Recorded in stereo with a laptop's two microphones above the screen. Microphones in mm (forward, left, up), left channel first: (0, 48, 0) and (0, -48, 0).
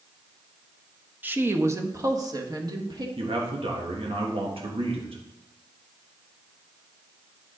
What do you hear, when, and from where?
1.2 s a woman speaking: 20° right (ahead or behind), 0.9 m; by 3.1 s 45° right (ahead or behind), 1.8 m
3.2 s a man speaking: 75° right (ahead or behind), 1.4 m